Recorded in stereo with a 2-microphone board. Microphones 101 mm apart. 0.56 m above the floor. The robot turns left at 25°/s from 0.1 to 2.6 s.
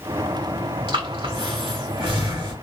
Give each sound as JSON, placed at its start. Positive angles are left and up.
{"t": 0.9, "sound": "breathing", "side_deg": -50, "distance_m": 2.0}